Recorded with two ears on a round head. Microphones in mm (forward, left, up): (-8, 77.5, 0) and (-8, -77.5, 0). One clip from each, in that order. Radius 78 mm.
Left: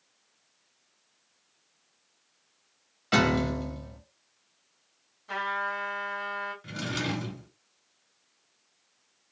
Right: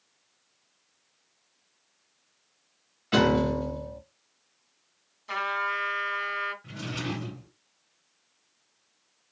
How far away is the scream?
No scream in this recording.